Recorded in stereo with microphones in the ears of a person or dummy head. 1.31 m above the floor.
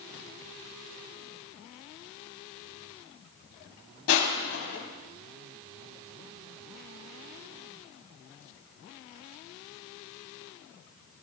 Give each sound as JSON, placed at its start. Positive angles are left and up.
{"t": 4.1, "sound": "crushing", "side_deg": 70, "distance_m": 4.5}